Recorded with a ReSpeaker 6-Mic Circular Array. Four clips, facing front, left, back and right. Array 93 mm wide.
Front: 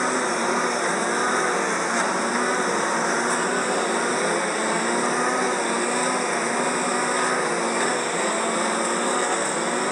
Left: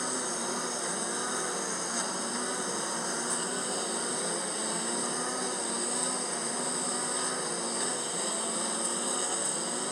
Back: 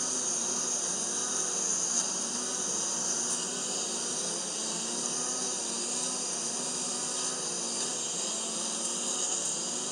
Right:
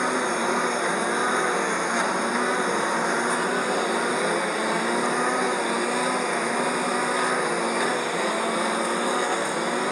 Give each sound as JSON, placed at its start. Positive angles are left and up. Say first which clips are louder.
{"t": 0.0, "sound": "a lawn mower", "louder": "right 11 dB, front 17 dB", "azimuth_deg": -40}